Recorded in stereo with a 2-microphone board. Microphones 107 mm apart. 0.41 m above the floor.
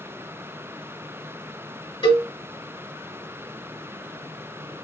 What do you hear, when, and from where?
2.0 s a cowbell: 55° left (ahead or behind), 2.0 m